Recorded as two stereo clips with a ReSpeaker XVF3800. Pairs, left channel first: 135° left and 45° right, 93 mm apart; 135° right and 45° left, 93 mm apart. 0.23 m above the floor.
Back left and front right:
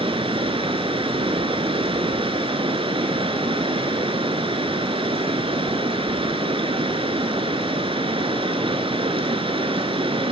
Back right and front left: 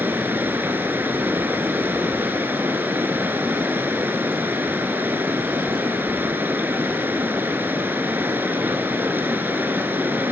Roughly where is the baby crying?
I don't hear a baby crying.